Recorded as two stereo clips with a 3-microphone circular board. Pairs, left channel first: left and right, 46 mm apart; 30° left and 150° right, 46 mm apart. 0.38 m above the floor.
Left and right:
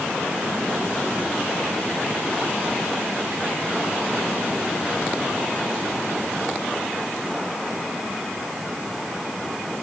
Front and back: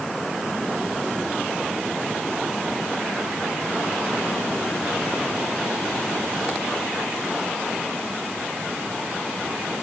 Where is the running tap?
I don't hear a running tap.